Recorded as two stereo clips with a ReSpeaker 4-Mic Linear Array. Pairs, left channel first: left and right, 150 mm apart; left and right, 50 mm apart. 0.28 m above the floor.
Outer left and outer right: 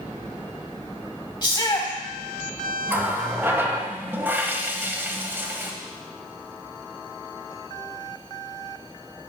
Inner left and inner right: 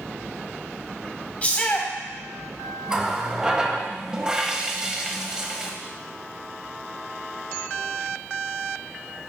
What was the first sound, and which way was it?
A shout, 30° left (ahead or behind).